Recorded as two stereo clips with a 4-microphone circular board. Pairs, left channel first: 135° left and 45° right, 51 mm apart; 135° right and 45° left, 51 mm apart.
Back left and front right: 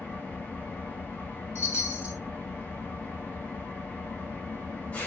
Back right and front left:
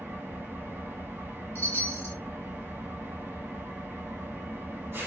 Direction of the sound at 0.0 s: 80° left.